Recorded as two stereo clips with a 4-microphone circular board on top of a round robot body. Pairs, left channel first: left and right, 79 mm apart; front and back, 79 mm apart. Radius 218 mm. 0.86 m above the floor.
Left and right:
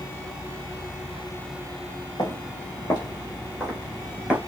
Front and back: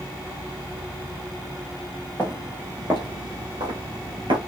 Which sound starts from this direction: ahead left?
Footsteps, at 2.2 s.